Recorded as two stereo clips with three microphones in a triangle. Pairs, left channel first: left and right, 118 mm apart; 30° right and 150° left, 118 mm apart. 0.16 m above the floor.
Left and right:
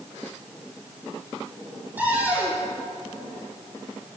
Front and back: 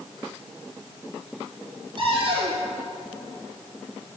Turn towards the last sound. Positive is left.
turn(degrees=-165)